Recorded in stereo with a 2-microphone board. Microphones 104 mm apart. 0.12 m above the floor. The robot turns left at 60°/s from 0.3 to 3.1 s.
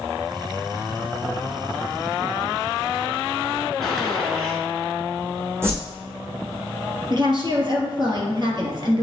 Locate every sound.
3.8 s a gunshot: centre (ahead or behind), 1.4 m
5.6 s a whoosh: 25° right (ahead or behind), 1.9 m
7.1 s a woman speaking: 45° right (ahead or behind), 2 m